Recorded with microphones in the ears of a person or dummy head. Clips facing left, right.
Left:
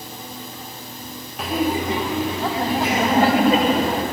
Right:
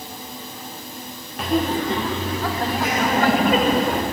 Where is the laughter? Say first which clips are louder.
Right 1 dB; centre (ahead or behind), 0.9 m; by 4.0 s 20° left (ahead or behind), 2.5 m.